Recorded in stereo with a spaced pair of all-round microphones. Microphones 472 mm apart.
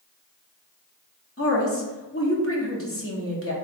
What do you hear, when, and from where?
1.4 s a woman speaking: 30° left (ahead or behind), 1.3 m